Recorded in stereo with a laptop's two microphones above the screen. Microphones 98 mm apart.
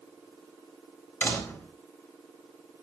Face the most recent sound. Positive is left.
turn(degrees=20)  # may be behind; listen again after turning